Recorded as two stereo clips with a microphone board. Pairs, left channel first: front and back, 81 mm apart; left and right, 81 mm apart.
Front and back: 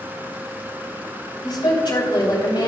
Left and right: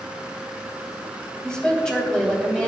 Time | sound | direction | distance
1.4 | a woman speaking | 10° left | 3.5 m